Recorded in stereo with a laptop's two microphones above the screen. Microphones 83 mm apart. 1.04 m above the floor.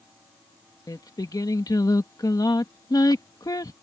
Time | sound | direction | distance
0.9 | singing | 50° left (ahead or behind) | ?